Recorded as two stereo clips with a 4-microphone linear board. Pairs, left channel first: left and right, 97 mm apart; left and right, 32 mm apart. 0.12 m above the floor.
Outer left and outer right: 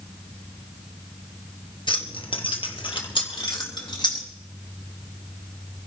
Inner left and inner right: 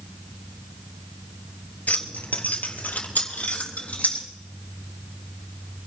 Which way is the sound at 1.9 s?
55° left (ahead or behind).